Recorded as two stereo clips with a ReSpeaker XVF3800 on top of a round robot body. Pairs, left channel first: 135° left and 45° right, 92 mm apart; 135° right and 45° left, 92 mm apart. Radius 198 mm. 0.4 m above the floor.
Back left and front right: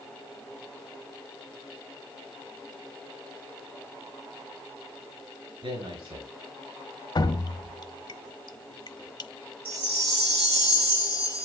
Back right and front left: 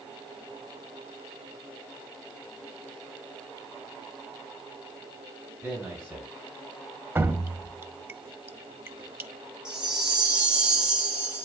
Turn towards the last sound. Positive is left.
turn(degrees=-40)